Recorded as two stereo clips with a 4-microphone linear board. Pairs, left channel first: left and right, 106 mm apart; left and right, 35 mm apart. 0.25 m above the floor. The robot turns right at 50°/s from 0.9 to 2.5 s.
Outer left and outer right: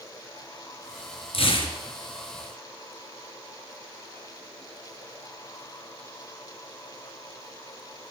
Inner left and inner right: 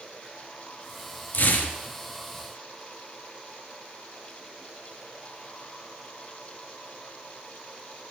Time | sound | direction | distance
1.3 | tearing paper | 70° left (ahead or behind) | 1.3 m